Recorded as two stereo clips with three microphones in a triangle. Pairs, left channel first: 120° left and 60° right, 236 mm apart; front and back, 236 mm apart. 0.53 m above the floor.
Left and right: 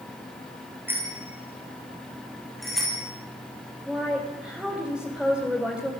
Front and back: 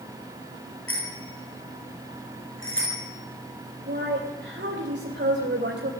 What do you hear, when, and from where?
0.9 s a bicycle bell: 20° left, 7.5 m; by 3.0 s 30° left, 10 m
3.9 s a woman speaking: 145° right, 3 m